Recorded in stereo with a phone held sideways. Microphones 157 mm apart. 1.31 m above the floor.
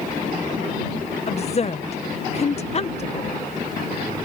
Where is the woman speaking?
45° left (ahead or behind).